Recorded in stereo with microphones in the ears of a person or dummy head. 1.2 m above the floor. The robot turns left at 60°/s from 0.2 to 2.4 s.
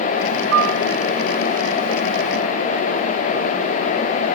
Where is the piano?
75° right (ahead or behind), 0.6 m; by 0.8 s 70° right (ahead or behind), 0.6 m.